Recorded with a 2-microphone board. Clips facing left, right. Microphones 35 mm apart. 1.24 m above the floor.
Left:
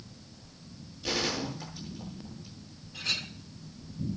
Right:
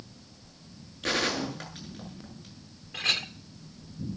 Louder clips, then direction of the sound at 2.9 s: Right 5 dB; 70° right (ahead or behind).